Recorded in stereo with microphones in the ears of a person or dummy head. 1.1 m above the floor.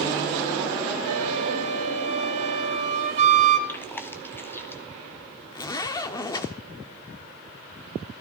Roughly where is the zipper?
Left.